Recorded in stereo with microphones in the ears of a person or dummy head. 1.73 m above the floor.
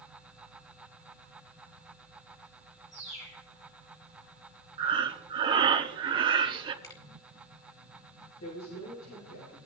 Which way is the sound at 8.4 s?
80° left.